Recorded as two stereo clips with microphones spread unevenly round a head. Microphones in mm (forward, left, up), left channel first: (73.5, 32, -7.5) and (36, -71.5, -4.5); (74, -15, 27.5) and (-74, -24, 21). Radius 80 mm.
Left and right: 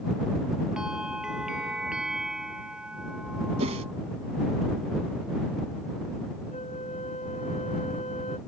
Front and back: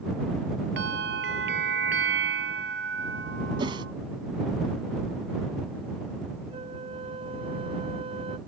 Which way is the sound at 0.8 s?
165° left.